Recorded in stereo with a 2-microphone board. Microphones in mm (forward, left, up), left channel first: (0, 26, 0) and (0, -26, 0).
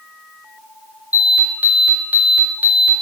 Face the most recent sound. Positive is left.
turn(degrees=-35)  # may be behind; listen again after turning